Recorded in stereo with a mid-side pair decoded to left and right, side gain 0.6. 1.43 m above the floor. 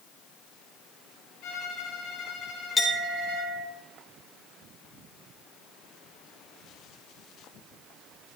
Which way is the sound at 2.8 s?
25° left.